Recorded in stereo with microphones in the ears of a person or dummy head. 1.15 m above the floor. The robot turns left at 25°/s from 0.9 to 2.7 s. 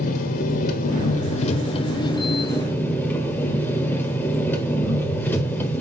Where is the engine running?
55° left, 1.6 m; by 5.8 s 10° left, 1.6 m.